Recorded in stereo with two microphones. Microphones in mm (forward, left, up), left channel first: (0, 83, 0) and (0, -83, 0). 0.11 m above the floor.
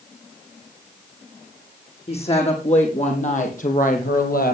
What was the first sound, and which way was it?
A woman speaking, 35° left (ahead or behind).